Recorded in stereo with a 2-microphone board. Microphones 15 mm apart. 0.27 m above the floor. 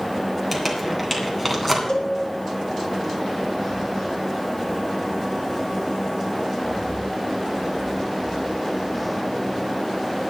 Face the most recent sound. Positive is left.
turn(degrees=70)  # may be behind; listen again after turning